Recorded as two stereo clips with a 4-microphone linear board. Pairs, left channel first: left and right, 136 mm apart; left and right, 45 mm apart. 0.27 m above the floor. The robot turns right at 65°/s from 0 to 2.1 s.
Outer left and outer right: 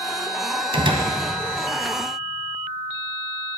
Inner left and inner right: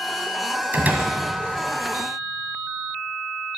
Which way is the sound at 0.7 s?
45° right (ahead or behind).